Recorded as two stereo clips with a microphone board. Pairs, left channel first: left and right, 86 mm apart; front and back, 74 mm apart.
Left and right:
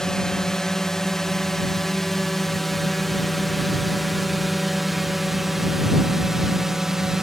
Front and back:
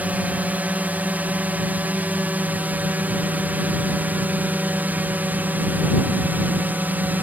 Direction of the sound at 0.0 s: 165° left.